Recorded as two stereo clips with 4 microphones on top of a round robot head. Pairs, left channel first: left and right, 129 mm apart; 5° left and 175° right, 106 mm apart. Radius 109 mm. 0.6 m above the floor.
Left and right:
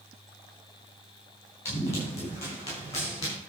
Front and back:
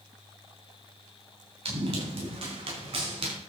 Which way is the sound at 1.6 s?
165° left.